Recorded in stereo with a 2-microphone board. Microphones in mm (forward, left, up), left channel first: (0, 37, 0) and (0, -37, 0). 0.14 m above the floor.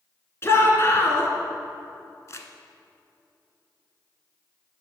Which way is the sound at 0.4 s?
35° left (ahead or behind).